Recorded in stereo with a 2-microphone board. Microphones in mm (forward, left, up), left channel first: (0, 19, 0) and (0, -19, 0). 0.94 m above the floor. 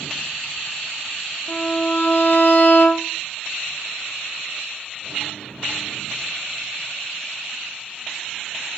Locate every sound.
1.5 s a violin: 40° left (ahead or behind), 0.7 m